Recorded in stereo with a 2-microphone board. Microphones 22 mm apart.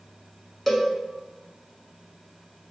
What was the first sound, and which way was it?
A cowbell, centre (ahead or behind).